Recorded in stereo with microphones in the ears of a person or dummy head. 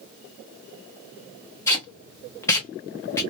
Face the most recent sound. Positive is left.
turn(degrees=20)  # may be behind; listen again after turning